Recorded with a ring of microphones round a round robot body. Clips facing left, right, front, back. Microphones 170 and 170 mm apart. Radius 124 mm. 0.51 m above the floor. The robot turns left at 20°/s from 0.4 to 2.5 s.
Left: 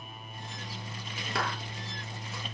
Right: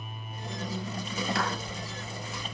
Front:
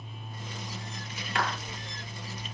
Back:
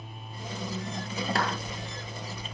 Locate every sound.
1.4 s a clap: 125° left, 8 m; by 1.5 s 120° left, 8 m